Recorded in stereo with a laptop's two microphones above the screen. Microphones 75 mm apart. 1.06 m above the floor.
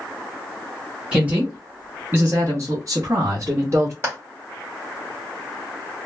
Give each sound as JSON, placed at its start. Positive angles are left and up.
{"t": 1.1, "sound": "a woman speaking", "side_deg": -15, "distance_m": 1.4}
{"t": 4.0, "sound": "a clap", "side_deg": -35, "distance_m": 1.3}